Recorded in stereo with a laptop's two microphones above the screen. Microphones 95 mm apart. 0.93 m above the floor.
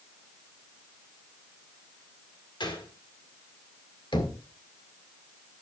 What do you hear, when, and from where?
2.6 s a gunshot: 55° left (ahead or behind), 1.9 m
4.1 s knocking: 55° left (ahead or behind), 1.8 m